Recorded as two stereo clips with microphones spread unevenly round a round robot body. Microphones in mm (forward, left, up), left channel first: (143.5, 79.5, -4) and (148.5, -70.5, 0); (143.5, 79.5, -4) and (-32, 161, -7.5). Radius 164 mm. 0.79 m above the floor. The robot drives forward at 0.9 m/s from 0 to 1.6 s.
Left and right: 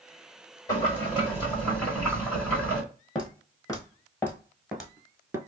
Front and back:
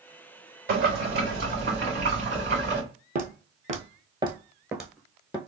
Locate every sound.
0.7 s boiling: 160° left, 1.2 m; by 2.8 s 170° left, 2.0 m
3.1 s footsteps: 140° left, 1.1 m; by 5.4 s 55° right, 0.8 m